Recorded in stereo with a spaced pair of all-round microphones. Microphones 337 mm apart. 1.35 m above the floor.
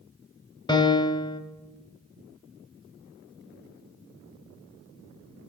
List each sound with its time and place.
0.7 s a piano: 15° left (ahead or behind), 2 m